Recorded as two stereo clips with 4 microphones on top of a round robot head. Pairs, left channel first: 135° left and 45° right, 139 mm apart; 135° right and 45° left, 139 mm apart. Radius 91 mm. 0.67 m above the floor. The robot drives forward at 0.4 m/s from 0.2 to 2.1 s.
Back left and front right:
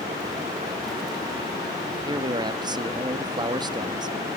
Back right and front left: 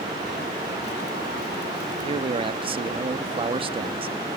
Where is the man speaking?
5° left, 1.0 m.